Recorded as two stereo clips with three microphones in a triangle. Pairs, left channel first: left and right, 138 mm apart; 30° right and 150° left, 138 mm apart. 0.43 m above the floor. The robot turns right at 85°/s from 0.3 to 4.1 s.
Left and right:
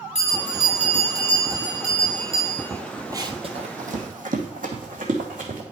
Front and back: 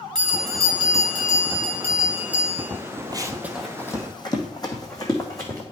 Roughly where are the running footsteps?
Behind right.